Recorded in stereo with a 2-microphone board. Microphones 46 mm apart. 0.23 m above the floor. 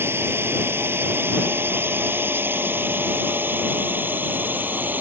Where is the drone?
55° right (ahead or behind); by 5.0 s 40° right (ahead or behind).